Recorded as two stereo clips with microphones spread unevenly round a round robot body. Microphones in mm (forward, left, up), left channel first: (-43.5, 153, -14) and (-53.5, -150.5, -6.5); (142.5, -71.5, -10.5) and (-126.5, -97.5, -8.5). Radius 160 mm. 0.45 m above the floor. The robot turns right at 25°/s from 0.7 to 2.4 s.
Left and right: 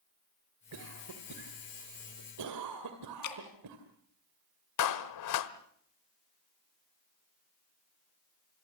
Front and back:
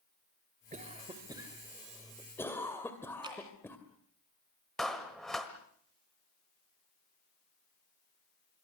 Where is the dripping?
110° left, 3 m.